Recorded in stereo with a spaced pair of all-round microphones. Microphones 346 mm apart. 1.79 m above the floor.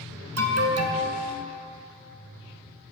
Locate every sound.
0.4 s an alarm: 50° right (ahead or behind), 0.6 m